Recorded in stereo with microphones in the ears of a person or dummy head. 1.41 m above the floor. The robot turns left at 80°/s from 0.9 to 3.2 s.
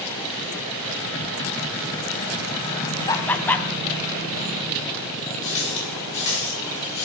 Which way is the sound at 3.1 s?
25° left (ahead or behind).